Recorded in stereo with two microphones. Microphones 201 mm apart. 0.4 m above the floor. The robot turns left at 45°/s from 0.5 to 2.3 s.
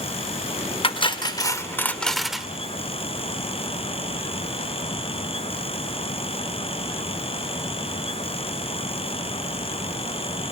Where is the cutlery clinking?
65° left, 0.6 m; by 2.5 s 5° right, 0.6 m.